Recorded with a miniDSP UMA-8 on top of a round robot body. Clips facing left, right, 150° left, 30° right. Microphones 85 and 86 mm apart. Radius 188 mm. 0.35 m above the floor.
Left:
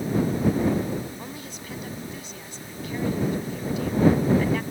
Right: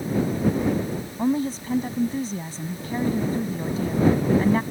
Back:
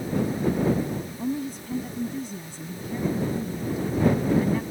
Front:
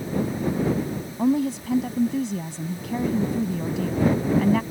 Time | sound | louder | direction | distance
1.2 | a woman speaking | right 15 dB, front 11 dB | 35° right | ?